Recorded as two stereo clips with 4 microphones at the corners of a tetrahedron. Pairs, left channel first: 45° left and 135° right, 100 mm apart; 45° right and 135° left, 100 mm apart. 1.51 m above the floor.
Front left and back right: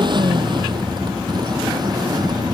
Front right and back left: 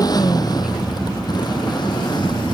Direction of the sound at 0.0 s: 95° right.